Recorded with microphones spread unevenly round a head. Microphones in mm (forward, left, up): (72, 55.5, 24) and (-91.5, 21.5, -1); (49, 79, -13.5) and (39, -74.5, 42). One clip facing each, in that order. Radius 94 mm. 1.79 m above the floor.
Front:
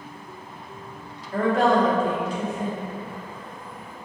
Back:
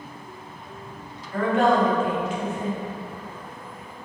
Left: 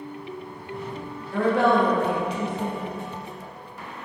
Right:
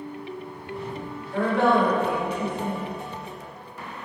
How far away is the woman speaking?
About 0.8 m.